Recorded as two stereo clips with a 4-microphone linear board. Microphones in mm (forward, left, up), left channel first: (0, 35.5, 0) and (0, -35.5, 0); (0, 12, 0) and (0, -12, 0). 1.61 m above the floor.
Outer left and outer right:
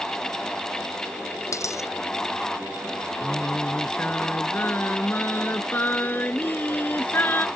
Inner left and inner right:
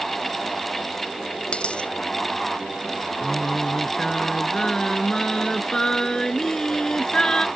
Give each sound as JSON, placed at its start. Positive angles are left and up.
{"t": 1.5, "sound": "a dropped coin", "side_deg": 50}
{"t": 3.2, "sound": "singing", "side_deg": 25}